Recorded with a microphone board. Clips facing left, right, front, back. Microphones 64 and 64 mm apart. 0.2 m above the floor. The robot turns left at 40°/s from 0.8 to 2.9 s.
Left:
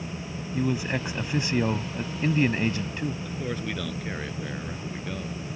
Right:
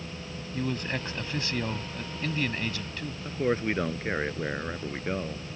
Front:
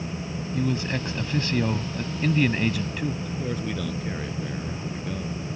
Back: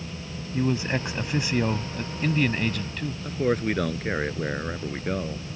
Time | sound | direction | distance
0.5 | a man speaking | 155° left | ?
3.2 | a man speaking | 145° right | ?